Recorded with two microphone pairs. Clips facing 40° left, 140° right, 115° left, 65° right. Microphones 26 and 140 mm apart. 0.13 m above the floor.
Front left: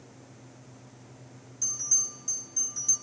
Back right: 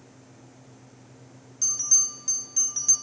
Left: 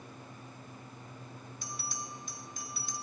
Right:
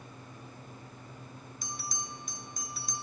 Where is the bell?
110° right, 1.4 m.